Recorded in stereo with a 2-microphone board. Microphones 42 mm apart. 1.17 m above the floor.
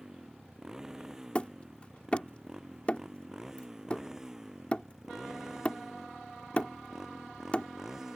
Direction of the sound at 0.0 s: 15° right (ahead or behind).